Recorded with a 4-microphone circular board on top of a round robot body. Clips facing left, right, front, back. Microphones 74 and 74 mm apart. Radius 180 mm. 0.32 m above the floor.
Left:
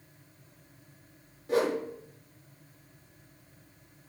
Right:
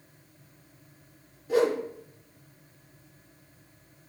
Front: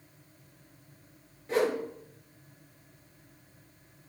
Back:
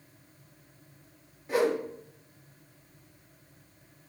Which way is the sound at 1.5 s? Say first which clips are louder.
Right 3 dB, back 1 dB; 95° left.